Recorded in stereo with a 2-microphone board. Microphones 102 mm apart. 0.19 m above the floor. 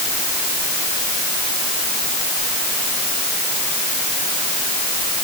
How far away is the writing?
No writing in this recording.